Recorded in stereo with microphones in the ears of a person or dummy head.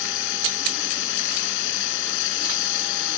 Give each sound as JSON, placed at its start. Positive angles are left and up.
{"t": 0.0, "sound": "running water", "side_deg": 70}